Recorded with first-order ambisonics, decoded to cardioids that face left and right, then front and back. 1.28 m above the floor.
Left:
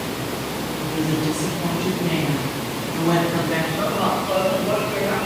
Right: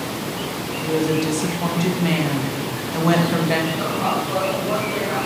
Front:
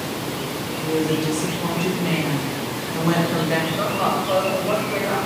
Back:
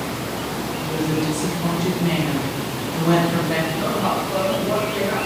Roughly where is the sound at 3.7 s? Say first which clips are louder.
Even, even; ahead left.